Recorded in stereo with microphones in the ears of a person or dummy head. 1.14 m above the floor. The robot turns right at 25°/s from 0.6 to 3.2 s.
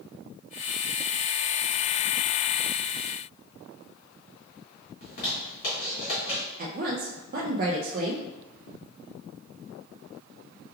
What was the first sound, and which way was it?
A zipper, 50° left (ahead or behind).